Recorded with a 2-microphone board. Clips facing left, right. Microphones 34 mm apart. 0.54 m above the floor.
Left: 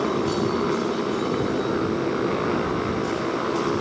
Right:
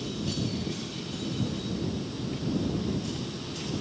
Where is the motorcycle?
90° left; by 3.8 s 75° left (ahead or behind).